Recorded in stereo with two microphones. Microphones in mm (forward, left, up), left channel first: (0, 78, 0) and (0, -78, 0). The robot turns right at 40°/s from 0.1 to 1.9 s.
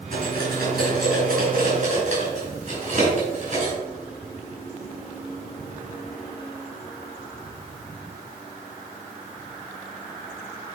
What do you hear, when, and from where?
0.1 s cutlery clinking: 60° right (ahead or behind), 5.5 m; by 3.8 s 50° right (ahead or behind), 5.5 m